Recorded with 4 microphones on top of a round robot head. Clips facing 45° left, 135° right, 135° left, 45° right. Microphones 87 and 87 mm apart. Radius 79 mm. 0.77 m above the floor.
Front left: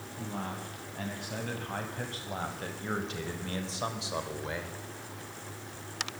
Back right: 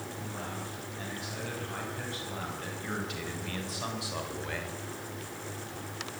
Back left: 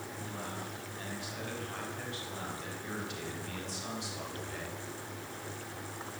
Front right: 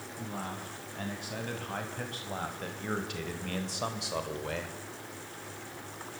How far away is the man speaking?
About 8.5 m.